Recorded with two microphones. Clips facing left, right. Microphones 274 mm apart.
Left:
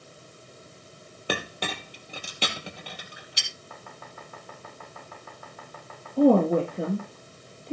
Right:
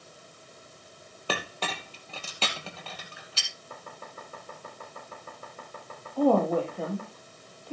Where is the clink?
15° left (ahead or behind), 2 m.